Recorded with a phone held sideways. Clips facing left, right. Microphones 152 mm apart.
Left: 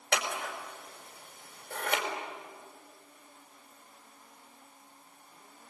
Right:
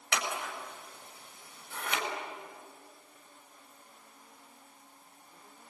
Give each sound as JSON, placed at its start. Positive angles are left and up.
{"t": 0.1, "sound": "scissors", "side_deg": 45, "distance_m": 4.5}